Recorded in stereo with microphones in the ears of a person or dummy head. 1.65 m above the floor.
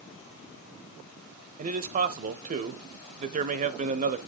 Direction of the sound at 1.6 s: 45° right (ahead or behind).